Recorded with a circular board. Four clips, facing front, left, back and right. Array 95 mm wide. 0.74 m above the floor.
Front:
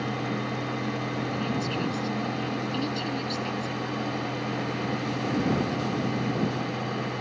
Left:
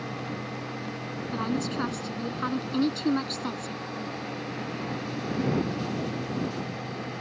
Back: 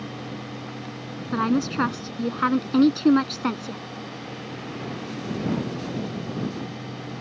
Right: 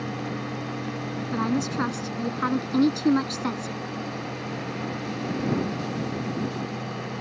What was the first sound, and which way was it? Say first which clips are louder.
A woman speaking: right 4 dB, back 6 dB; 170° right.